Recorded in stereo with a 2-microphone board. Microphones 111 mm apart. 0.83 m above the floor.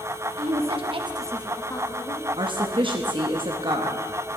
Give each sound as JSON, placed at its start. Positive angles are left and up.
{"t": 0.4, "sound": "a woman speaking", "side_deg": -60, "distance_m": 1.7}
{"t": 2.4, "sound": "a woman speaking", "side_deg": -45, "distance_m": 0.7}